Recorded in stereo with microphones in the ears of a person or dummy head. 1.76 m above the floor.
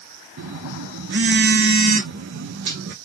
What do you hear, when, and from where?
0.4 s a phone buzzing: 65° right (ahead or behind), 0.6 m